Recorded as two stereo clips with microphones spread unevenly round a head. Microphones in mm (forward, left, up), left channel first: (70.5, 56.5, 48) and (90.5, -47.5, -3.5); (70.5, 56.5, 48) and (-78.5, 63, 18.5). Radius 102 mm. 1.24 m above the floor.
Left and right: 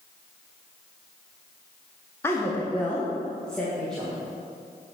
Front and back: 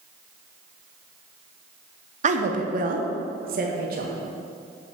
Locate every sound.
2.2 s a woman speaking: 170° right, 0.8 m; by 4.2 s 165° right, 1.9 m